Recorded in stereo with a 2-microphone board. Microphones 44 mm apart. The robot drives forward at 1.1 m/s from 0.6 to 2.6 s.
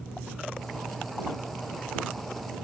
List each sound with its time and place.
Only background noise.